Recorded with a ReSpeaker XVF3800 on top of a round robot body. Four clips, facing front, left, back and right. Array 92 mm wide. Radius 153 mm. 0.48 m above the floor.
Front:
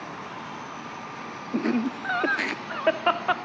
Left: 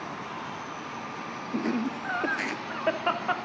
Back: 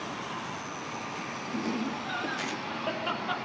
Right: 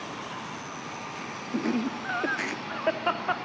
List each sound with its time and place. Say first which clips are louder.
1.5 s laughter: right 1 dB, front 7 dB; 5° right, 1.8 m